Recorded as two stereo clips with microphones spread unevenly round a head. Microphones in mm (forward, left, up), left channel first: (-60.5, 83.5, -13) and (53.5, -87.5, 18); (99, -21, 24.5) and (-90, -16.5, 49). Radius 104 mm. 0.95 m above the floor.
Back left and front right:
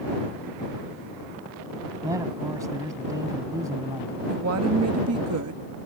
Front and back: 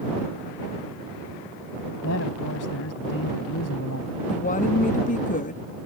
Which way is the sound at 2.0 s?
20° left.